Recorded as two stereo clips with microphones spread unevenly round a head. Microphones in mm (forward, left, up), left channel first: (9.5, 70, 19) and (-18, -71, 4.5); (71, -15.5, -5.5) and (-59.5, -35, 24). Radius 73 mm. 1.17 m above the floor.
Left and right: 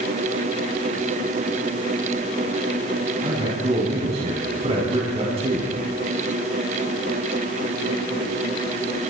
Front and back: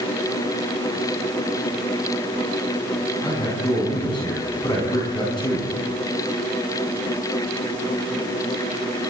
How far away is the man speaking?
About 8 m.